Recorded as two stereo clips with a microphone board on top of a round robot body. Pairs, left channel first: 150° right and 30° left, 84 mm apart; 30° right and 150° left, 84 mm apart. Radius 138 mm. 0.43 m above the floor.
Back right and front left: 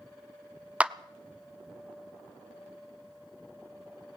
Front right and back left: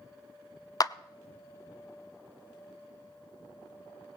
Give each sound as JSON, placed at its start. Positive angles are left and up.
{"t": 0.8, "sound": "a clap", "azimuth_deg": -40, "distance_m": 0.9}